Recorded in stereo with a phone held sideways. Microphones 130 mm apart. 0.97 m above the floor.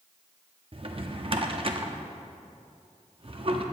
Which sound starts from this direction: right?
A drawer, at 0.7 s.